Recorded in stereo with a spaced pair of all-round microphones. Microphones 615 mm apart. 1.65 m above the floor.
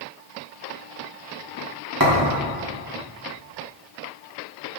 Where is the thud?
35° right (ahead or behind), 1.4 m.